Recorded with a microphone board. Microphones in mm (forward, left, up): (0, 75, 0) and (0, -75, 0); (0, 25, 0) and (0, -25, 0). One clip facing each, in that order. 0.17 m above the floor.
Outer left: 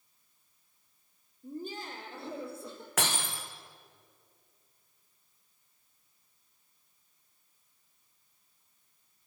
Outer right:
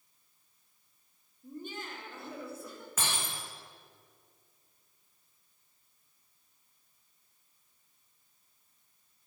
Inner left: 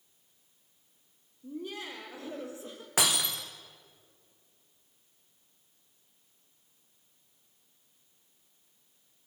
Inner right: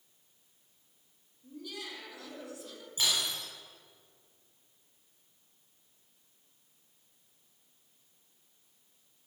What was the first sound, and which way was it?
Laughter, 35° left (ahead or behind).